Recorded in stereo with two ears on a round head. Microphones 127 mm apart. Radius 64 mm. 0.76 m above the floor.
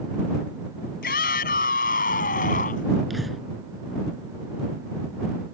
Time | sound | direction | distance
1.0 | a shout | 75° left (ahead or behind) | ?
3.1 | breathing | centre (ahead or behind) | ?